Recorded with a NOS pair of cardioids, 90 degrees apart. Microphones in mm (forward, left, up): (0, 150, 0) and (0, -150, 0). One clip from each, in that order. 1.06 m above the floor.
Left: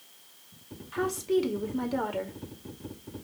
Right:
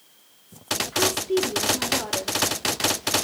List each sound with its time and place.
0.9 s a woman speaking: 15° left, 4 m